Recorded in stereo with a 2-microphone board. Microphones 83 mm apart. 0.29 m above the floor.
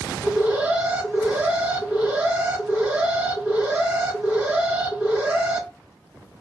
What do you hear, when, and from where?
0.2 s an alarm: 20° right (ahead or behind), 0.8 m